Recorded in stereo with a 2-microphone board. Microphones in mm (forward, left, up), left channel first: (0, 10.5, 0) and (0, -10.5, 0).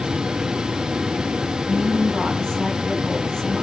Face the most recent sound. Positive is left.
turn(degrees=20)  # may be behind; listen again after turning